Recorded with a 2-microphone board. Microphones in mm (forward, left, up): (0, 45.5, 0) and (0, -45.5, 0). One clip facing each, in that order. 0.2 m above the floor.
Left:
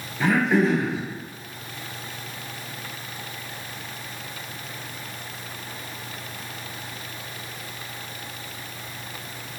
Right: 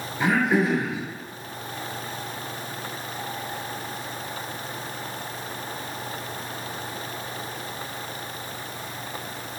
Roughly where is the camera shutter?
I don't hear a camera shutter.